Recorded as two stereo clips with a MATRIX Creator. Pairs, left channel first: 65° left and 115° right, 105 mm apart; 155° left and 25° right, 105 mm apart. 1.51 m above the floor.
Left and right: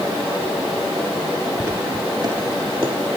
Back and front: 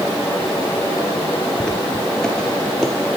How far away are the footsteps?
About 1.6 m.